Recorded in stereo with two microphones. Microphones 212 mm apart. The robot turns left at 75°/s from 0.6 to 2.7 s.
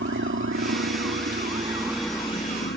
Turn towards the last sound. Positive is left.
turn(degrees=55)  # may be behind; listen again after turning